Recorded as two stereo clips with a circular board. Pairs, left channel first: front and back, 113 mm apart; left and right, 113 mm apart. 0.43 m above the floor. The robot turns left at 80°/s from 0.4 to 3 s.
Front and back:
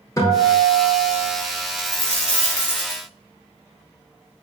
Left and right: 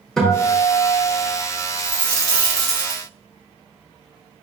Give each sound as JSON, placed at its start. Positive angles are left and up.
{"t": 0.2, "sound": "a guitar", "azimuth_deg": 10, "distance_m": 0.8}
{"t": 1.8, "sound": "a dropped coin", "azimuth_deg": 40, "distance_m": 1.4}